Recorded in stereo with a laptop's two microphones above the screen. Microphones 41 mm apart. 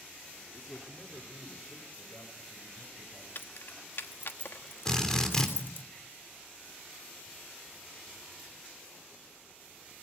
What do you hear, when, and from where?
0.5 s a man speaking: 25° left (ahead or behind), 1.8 m; by 3.2 s 75° left (ahead or behind), 5.5 m
3.4 s keys jangling: 65° left (ahead or behind), 1.2 m
4.8 s a drill: 15° left (ahead or behind), 3.5 m